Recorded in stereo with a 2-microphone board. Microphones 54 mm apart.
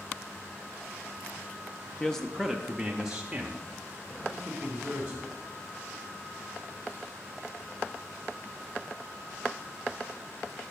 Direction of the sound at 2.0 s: 15° left (ahead or behind).